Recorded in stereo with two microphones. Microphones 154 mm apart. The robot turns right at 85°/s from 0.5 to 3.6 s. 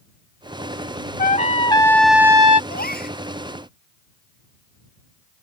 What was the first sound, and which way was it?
A trumpet, 105° left.